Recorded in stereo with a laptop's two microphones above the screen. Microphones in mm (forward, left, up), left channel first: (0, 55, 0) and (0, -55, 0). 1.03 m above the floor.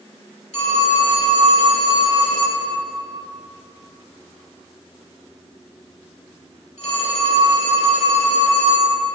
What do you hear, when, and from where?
0.5 s a phone ringing: 80° left, 1.7 m